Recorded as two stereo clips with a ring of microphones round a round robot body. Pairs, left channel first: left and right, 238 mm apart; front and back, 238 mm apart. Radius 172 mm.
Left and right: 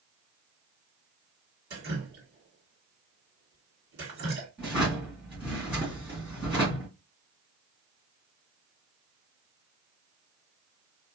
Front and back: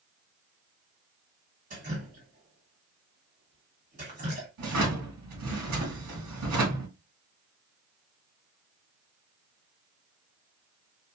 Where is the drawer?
170° left, 2.0 m.